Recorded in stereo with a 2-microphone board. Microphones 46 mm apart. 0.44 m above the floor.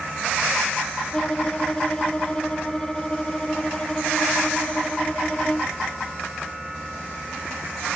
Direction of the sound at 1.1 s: 20° left (ahead or behind).